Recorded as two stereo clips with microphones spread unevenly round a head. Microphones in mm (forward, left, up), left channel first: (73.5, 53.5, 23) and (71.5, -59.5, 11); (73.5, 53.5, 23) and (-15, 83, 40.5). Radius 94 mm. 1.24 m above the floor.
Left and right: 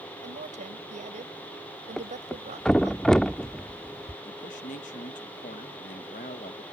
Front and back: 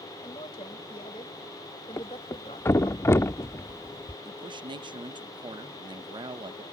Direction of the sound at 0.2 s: 80° right.